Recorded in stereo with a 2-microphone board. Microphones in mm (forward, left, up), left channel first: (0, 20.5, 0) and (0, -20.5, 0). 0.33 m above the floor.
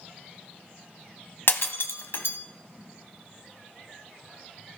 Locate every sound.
1.5 s breaking glass: 65° left (ahead or behind), 1.1 m